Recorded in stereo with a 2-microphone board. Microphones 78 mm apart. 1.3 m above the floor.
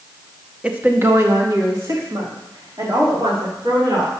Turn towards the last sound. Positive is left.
turn(degrees=-55)  # may be behind; listen again after turning